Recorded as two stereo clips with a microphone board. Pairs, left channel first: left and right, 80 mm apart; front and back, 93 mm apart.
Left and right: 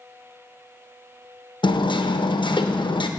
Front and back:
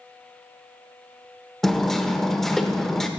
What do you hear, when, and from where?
1.6 s hammering: 85° left, 0.6 m